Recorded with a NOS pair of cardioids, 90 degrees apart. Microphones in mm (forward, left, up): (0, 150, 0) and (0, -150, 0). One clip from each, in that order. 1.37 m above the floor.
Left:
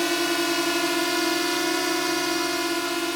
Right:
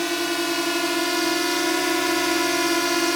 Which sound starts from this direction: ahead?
A drone, at 0.0 s.